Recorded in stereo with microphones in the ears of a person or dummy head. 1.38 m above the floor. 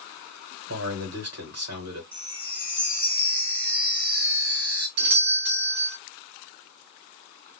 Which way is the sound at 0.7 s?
70° right (ahead or behind).